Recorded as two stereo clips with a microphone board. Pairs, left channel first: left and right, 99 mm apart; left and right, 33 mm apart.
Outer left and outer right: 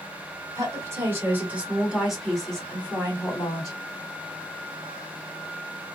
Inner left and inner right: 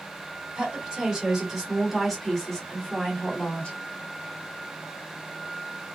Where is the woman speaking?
30° right (ahead or behind), 1.7 m; by 3.8 s 30° left (ahead or behind), 1.5 m.